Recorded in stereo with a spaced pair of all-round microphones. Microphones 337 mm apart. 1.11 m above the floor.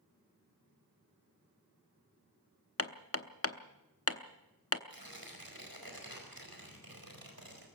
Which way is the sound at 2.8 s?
45° left (ahead or behind).